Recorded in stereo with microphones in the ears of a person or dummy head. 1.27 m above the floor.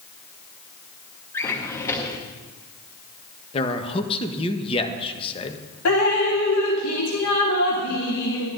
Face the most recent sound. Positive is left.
turn(degrees=70)  # may be behind; listen again after turning